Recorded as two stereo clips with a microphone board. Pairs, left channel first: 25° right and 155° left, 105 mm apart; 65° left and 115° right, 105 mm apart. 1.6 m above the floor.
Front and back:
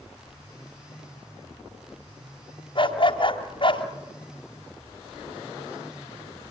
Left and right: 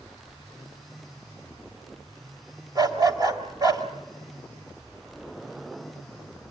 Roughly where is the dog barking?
Ahead right.